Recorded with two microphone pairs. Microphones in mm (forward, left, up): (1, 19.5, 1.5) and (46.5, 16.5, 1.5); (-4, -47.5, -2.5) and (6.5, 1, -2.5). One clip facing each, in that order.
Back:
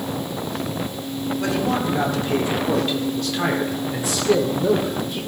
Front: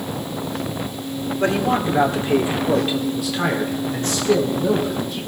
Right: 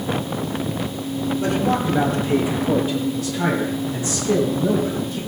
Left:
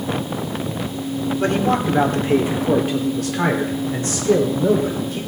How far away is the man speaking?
About 2.0 m.